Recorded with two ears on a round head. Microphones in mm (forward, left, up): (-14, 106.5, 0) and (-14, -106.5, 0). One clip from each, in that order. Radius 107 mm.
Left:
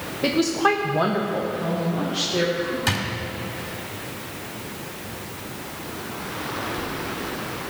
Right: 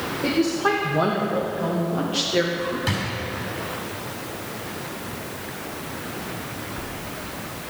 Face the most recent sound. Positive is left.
turn(degrees=30)  # may be behind; listen again after turning